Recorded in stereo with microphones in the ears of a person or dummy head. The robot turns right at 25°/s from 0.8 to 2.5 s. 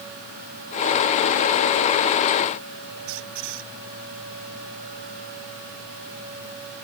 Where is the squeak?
75° right (ahead or behind).